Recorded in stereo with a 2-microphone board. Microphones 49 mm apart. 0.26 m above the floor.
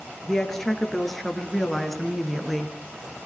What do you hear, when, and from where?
0.3 s a woman speaking: 10° left (ahead or behind), 5 m; by 2.8 s centre (ahead or behind), 3.5 m